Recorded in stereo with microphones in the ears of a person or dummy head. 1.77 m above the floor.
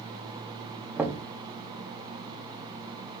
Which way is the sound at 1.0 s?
15° right (ahead or behind).